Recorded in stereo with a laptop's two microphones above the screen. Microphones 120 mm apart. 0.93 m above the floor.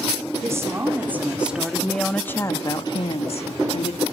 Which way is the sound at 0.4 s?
25° right (ahead or behind).